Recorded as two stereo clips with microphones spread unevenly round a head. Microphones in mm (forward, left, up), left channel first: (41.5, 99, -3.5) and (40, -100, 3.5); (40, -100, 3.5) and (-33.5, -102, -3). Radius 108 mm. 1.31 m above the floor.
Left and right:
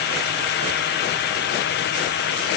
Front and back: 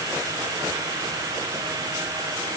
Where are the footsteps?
No footsteps in this recording.